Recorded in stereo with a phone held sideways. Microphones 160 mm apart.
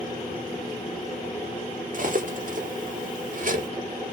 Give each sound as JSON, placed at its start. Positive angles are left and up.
{"t": 1.9, "sound": "cutlery clinking", "side_deg": -55, "distance_m": 0.7}